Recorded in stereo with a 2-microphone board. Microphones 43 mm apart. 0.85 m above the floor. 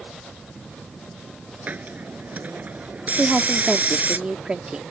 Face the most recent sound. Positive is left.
turn(degrees=-25)  # may be behind; listen again after turning